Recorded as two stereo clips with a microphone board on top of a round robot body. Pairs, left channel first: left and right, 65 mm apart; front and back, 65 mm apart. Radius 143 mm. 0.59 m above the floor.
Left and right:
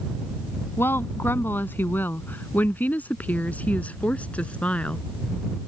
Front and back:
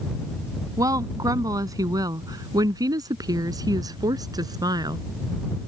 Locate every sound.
0.8 s a woman speaking: 150° left; by 5.0 s 165° left